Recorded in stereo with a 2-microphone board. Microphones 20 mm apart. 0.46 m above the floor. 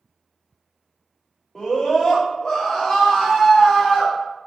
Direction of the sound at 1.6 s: 5° left (ahead or behind).